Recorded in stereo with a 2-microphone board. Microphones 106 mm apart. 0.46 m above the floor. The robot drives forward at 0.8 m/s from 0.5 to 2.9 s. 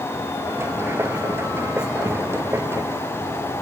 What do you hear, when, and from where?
Only background noise.